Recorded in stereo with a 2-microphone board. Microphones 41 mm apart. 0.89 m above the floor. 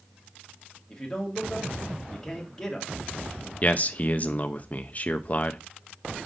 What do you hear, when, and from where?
0.9 s a man speaking: 10° left (ahead or behind), 1.7 m
3.6 s a man speaking: 35° left (ahead or behind), 0.5 m